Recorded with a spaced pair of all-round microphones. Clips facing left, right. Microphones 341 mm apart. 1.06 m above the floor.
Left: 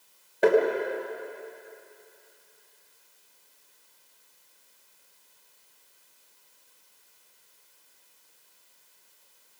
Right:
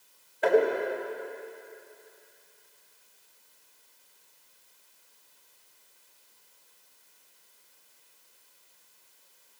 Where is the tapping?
80° left, 3 m.